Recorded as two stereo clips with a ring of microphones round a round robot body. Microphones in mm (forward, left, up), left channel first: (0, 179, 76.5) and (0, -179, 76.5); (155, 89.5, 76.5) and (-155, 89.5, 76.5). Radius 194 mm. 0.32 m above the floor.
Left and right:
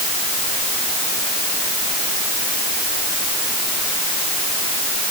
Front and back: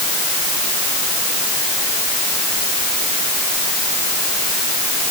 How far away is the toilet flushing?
I don't hear a toilet flushing.